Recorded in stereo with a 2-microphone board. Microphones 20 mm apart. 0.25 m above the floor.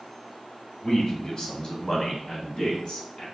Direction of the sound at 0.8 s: 20° left (ahead or behind).